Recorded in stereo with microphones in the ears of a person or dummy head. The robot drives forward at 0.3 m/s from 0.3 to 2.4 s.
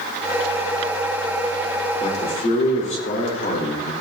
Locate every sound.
2.0 s a man speaking: 45° left (ahead or behind), 2.5 m